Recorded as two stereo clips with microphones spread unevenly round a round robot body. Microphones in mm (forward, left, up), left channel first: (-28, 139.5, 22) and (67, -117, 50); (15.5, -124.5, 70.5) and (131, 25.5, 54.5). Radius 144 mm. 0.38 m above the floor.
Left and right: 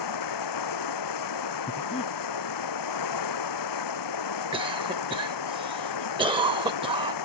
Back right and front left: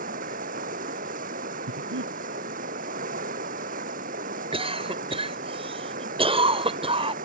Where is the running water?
110° left.